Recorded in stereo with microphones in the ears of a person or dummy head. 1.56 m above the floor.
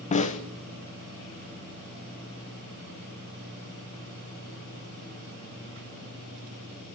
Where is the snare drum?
35° left (ahead or behind), 0.9 m.